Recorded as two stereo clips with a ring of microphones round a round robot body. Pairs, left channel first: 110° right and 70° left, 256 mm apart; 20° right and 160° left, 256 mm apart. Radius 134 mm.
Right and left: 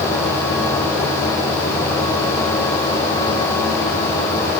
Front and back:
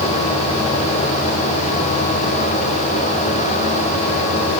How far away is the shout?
I don't hear a shout.